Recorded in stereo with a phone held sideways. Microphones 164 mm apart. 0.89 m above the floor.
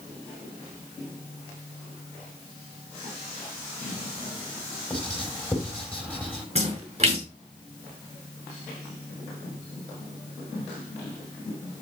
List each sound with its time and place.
4.9 s writing: 5° left (ahead or behind), 5.5 m
6.5 s a splash: 40° right (ahead or behind), 5.5 m